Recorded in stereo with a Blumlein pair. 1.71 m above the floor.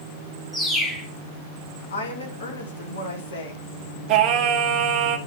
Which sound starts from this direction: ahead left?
A woman speaking, at 1.9 s.